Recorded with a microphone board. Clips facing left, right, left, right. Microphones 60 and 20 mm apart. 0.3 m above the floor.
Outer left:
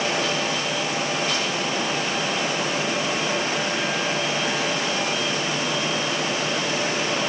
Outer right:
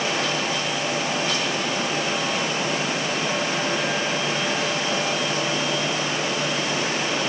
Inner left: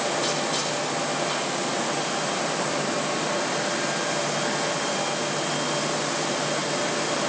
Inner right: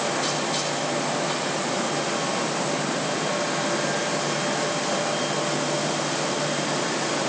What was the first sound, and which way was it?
Only background noise.